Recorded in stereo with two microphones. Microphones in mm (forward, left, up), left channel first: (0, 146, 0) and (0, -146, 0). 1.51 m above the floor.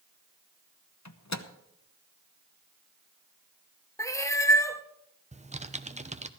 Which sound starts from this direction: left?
A microwave, at 1.1 s.